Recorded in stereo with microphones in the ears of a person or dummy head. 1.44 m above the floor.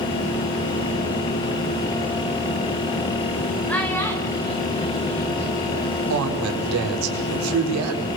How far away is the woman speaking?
About 5 m.